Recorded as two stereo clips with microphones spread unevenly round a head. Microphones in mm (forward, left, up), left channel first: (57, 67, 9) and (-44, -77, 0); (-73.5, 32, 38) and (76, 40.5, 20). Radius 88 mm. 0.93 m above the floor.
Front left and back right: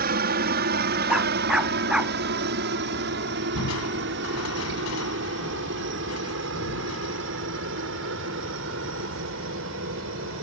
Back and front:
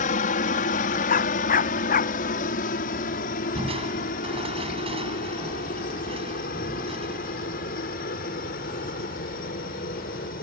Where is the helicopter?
145° right; by 10.4 s 135° right.